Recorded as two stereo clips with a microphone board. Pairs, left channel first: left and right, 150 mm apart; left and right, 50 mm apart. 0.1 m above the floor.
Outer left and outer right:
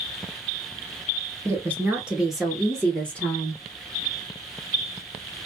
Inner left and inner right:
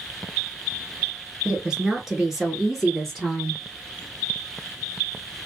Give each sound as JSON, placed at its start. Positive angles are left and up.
{"t": 1.4, "sound": "a woman speaking", "side_deg": -20, "distance_m": 1.1}